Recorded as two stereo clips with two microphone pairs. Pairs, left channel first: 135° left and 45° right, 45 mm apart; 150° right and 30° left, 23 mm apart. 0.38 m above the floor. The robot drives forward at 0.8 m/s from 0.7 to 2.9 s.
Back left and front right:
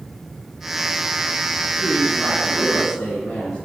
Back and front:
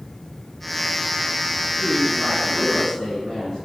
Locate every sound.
1.8 s a woman speaking: 140° left, 4 m; by 3.5 s 150° left, 4.5 m